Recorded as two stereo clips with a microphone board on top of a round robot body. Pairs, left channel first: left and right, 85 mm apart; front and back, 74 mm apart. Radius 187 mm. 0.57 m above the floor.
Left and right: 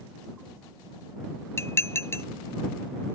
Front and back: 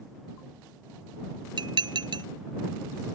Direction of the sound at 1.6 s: 155° left.